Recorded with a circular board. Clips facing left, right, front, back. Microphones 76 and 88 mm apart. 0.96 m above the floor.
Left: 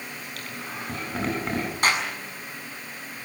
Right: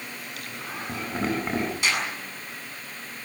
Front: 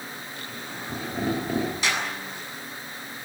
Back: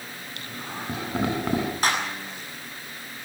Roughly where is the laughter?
Behind.